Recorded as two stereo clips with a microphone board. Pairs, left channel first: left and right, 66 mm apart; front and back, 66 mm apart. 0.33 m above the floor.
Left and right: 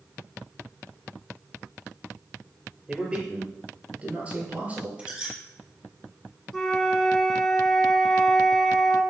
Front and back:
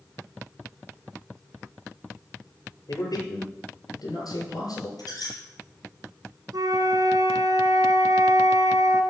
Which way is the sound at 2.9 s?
15° right.